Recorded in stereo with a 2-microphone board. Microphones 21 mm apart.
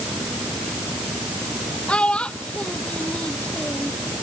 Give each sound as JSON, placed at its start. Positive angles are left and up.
{"t": 1.9, "sound": "a child speaking", "side_deg": 75}